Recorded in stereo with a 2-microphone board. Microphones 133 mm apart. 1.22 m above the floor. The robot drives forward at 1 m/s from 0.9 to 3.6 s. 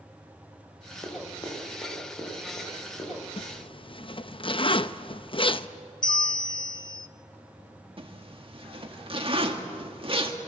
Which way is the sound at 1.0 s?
25° left (ahead or behind).